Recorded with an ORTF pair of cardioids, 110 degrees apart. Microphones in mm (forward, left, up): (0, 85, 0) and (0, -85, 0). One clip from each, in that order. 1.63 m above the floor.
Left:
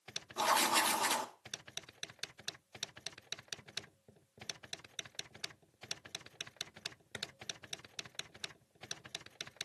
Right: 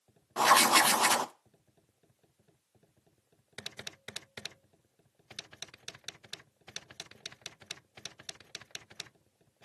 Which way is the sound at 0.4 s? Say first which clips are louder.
Right 8 dB; 40° right.